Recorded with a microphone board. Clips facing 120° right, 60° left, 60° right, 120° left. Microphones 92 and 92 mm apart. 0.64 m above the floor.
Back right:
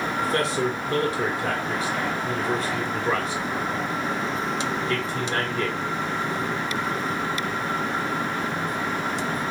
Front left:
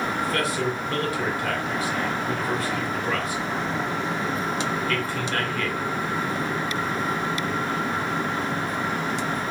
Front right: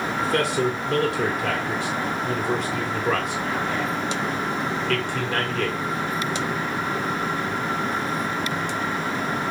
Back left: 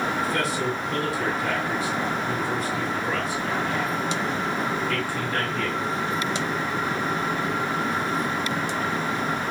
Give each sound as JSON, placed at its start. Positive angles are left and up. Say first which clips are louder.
{"t": 0.2, "sound": "a man speaking", "louder": "back right 4 dB, front right 3 dB", "azimuth_deg": -60, "distance_m": 1.4}